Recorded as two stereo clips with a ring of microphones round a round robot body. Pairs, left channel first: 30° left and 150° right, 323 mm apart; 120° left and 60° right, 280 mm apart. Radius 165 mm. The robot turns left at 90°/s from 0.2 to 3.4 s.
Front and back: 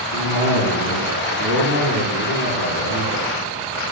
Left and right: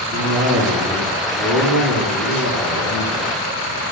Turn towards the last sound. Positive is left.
turn(degrees=110)